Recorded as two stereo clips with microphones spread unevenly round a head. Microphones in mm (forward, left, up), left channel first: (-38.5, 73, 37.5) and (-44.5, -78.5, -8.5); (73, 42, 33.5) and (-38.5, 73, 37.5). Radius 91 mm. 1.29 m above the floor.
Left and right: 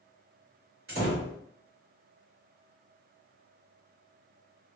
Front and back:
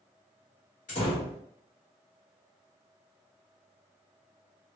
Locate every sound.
0.9 s a door slam: 55° right, 1.8 m